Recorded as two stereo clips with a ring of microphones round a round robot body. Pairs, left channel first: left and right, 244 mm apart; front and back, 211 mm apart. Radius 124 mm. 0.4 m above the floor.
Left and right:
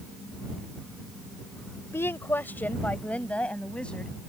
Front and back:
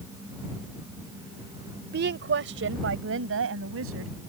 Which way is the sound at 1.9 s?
170° left.